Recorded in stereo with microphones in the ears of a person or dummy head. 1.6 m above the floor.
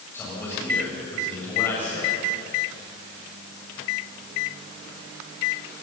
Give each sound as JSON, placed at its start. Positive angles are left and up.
{"t": 0.1, "sound": "a man speaking", "side_deg": 10, "distance_m": 7.5}